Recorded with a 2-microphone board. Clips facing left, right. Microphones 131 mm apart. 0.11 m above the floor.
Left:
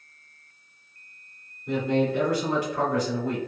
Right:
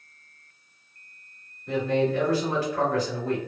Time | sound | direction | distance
1.7 | a man speaking | 15° left (ahead or behind) | 2.0 m